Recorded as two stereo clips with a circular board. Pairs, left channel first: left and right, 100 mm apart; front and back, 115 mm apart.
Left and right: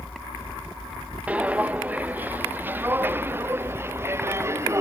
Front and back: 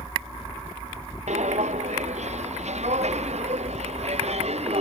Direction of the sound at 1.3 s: 170° right.